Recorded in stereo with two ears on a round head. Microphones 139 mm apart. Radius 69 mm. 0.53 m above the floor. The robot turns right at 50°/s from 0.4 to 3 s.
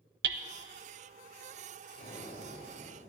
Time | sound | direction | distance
0.2 | hammering | 70° right (ahead or behind) | 0.6 m
1.9 | breathing | 65° left | 2.5 m